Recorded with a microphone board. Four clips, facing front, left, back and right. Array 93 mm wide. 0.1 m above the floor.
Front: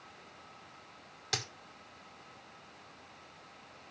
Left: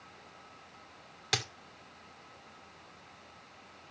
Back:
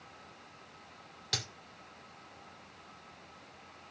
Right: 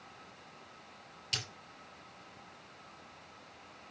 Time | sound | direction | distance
1.3 | a dropped coin | 80° left | 2.5 m